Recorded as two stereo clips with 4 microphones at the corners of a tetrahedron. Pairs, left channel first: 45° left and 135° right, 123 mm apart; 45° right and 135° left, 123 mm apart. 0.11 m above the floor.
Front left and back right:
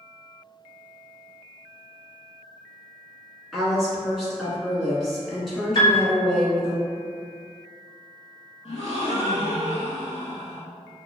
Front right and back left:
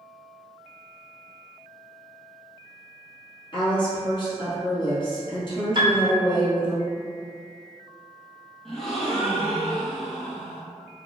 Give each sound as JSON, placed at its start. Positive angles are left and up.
{"t": 3.5, "sound": "a woman speaking", "azimuth_deg": -40, "distance_m": 1.3}
{"t": 5.8, "sound": "a piano", "azimuth_deg": 95, "distance_m": 0.6}
{"t": 8.7, "sound": "a gasp", "azimuth_deg": 40, "distance_m": 0.6}